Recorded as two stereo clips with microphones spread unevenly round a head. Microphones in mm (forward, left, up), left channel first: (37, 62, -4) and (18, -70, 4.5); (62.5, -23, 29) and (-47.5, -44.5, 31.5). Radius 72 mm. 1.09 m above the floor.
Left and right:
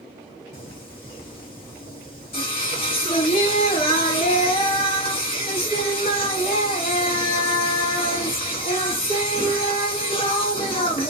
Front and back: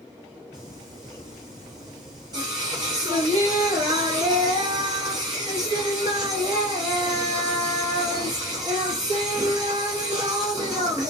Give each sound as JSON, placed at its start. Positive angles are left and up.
{"t": 0.5, "sound": "singing", "azimuth_deg": 130, "distance_m": 0.7}